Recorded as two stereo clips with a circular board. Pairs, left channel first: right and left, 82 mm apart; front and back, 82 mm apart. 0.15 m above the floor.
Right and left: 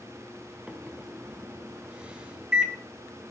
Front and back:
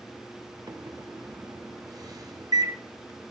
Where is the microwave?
165° left, 1.3 m.